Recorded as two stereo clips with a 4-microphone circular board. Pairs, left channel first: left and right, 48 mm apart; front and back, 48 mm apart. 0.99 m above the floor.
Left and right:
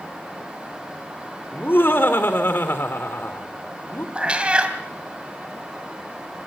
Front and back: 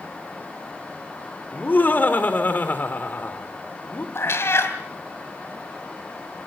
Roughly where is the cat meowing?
Ahead right.